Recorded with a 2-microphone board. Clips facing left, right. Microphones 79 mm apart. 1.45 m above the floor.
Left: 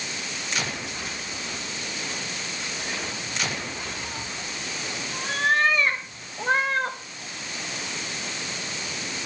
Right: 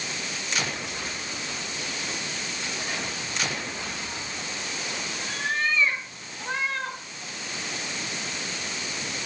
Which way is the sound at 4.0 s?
75° left (ahead or behind).